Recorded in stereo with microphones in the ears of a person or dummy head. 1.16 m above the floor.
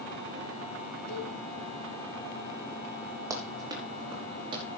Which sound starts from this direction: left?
A cowbell, at 1.1 s.